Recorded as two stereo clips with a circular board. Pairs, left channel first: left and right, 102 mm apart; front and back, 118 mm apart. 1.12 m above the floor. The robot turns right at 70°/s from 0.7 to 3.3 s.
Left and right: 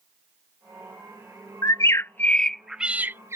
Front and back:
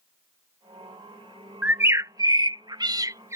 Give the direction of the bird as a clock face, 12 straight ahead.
8 o'clock.